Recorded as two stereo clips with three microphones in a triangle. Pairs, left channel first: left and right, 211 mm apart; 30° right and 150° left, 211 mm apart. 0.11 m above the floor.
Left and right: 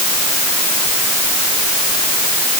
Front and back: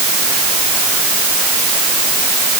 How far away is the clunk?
No clunk in this recording.